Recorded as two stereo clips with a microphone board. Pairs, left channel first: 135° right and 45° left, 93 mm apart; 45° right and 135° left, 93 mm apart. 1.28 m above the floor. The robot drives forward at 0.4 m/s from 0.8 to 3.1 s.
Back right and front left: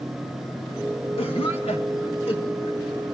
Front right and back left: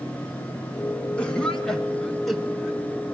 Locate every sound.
1.2 s a cough: 125° right, 1.5 m; by 2.8 s 140° right, 1.9 m